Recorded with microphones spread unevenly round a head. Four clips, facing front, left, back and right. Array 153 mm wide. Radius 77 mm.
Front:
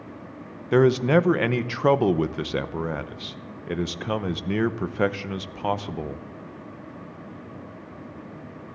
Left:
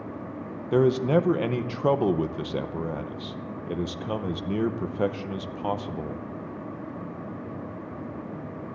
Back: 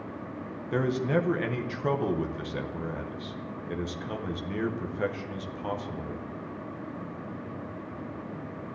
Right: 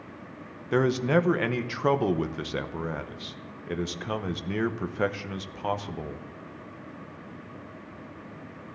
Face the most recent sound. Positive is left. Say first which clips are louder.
# left 2 dB, front 9 dB
turn(degrees=25)